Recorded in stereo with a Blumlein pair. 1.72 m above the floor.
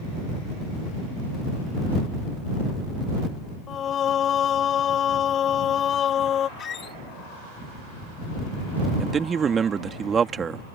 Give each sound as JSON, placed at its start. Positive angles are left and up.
{"t": 3.7, "sound": "singing", "azimuth_deg": 25}
{"t": 6.6, "sound": "a squeak", "azimuth_deg": 25}
{"t": 9.0, "sound": "a man speaking", "azimuth_deg": -20}